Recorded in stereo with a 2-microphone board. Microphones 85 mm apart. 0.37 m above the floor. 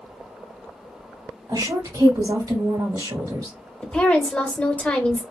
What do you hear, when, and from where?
1.5 s a woman speaking: 50° right (ahead or behind), 1.8 m
3.8 s a woman speaking: 15° left (ahead or behind), 0.9 m